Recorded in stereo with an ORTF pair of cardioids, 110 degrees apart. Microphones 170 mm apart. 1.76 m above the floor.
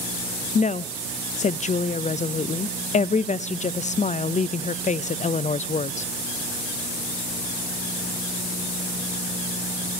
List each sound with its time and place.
0.6 s a woman speaking: 45° left, 0.6 m